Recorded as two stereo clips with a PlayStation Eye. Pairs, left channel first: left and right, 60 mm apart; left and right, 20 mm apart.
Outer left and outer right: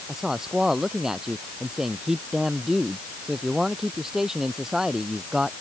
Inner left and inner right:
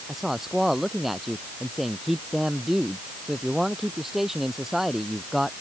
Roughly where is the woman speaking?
Centre.